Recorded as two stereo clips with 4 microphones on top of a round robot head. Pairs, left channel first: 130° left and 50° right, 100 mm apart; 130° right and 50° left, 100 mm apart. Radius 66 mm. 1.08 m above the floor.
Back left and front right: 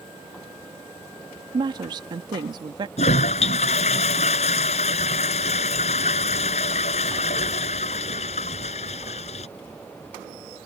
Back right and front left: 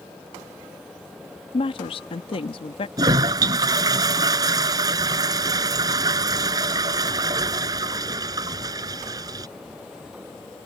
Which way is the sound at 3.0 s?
105° left.